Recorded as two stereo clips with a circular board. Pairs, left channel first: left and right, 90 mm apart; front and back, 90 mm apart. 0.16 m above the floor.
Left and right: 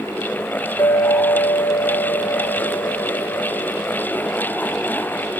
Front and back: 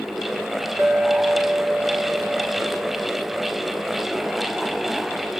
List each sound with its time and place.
0.8 s a clink: 125° left, 1.9 m